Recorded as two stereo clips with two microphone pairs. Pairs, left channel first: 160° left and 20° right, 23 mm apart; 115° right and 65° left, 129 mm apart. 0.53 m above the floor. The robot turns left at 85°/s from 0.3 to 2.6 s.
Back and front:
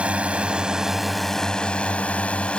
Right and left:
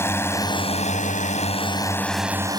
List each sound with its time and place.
0.0 s a drone: 45° right; by 2.6 s 120° left